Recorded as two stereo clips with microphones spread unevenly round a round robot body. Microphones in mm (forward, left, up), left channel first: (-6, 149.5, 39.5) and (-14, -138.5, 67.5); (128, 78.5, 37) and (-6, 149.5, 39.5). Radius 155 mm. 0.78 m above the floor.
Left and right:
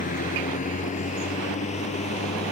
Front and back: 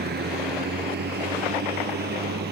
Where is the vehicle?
155° left.